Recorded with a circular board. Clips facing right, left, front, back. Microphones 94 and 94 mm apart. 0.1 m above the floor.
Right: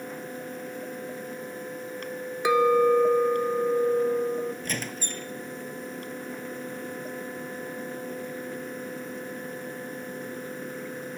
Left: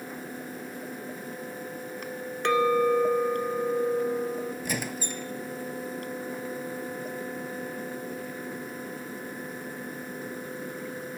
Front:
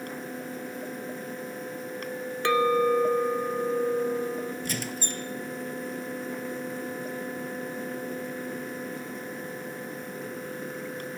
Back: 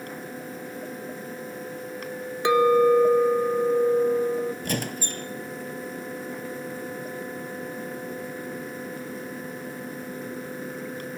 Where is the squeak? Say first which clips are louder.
Left 1 dB, back 3 dB; 170° left, 0.7 m.